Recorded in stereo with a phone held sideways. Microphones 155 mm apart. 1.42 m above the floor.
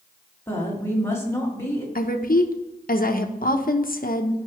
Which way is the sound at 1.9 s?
75° left (ahead or behind).